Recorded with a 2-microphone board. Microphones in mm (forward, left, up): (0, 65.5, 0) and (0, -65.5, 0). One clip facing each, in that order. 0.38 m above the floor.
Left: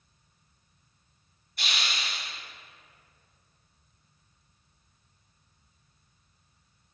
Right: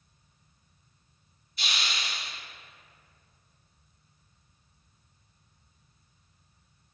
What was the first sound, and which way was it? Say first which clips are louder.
A hiss: even; 55° left (ahead or behind).